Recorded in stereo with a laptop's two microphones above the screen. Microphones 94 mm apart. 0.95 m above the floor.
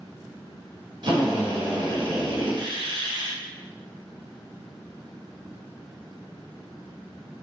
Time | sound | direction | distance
1.0 | a drill | 55° right (ahead or behind) | 0.6 m